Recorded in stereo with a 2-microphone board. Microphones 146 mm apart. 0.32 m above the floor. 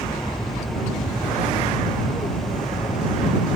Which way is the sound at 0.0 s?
30° left (ahead or behind).